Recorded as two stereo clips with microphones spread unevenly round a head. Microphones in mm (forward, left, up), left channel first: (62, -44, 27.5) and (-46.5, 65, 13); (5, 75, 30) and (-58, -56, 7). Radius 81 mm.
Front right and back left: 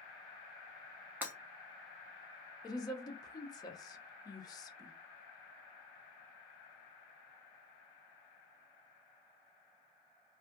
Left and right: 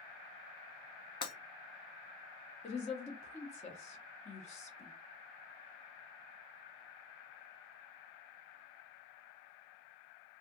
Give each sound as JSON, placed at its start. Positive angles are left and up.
{"t": 1.2, "sound": "breaking glass", "azimuth_deg": 55, "distance_m": 0.6}
{"t": 2.6, "sound": "a woman speaking", "azimuth_deg": 20, "distance_m": 0.6}